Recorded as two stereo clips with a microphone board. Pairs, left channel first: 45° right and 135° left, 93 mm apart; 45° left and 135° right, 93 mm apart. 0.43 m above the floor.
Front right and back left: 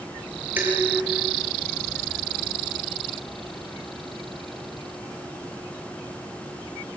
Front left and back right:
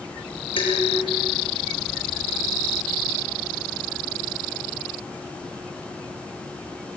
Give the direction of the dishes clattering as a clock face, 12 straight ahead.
10 o'clock.